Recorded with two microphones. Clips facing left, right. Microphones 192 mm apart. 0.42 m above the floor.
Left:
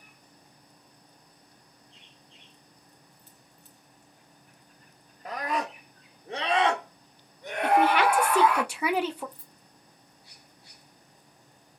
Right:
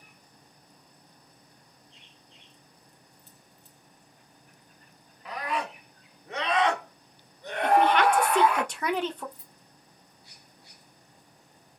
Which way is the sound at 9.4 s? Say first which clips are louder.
Even; 35° left (ahead or behind).